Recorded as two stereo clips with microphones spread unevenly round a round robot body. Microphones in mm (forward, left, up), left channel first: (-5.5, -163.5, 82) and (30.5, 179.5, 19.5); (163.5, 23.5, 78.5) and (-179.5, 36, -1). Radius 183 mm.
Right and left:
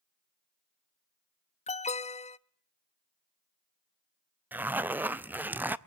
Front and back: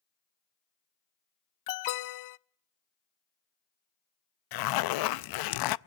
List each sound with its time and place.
1.7 s an alarm: 20° right, 0.6 m
4.5 s a zipper: 10° left, 0.6 m